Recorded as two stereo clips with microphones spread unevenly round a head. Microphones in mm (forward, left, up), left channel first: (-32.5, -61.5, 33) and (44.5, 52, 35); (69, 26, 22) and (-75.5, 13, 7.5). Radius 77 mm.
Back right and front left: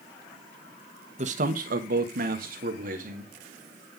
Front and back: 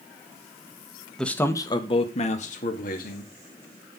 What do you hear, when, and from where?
1.2 s a man speaking: 90° left, 1.4 m; by 3.3 s 30° left, 2.5 m